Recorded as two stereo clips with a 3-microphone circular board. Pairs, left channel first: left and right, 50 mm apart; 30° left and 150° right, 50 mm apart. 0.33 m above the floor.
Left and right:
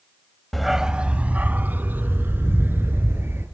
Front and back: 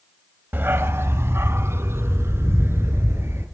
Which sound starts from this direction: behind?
A dog barking, at 0.5 s.